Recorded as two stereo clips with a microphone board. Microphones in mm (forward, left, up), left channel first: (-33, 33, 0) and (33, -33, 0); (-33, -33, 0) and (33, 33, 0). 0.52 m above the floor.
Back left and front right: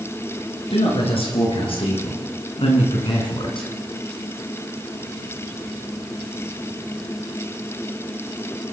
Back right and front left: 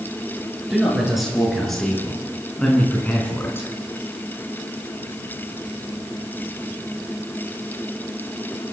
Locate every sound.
0.7 s a man speaking: 130° left, 7.5 m; by 3.7 s 160° left, 4.5 m